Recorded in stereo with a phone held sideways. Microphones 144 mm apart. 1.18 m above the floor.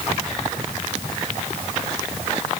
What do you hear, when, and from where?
Only background noise.